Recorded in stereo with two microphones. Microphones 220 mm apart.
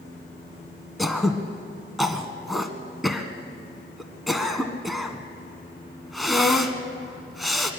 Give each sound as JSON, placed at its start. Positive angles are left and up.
{"t": 1.0, "sound": "throat clearing", "side_deg": 0, "distance_m": 1.3}